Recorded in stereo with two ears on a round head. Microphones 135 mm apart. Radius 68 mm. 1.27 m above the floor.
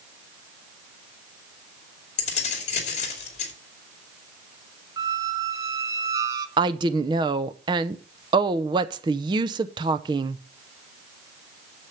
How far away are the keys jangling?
About 2.5 m.